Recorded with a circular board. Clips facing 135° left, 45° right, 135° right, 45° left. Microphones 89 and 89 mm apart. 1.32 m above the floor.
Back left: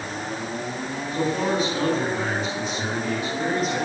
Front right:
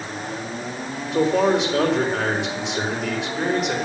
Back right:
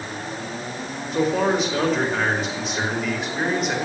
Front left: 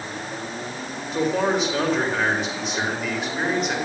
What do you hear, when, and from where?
1.1 s a man speaking: 40° right, 5 m